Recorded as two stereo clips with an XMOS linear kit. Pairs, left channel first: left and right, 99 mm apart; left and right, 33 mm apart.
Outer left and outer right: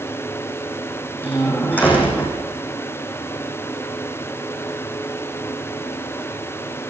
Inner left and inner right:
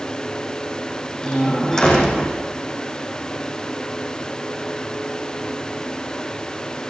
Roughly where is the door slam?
Centre.